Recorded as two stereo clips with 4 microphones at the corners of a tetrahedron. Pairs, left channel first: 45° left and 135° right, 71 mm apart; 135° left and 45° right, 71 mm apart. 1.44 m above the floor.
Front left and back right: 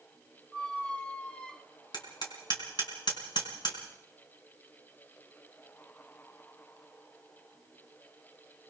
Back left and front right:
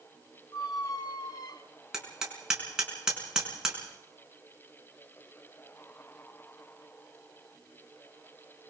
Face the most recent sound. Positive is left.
turn(degrees=35)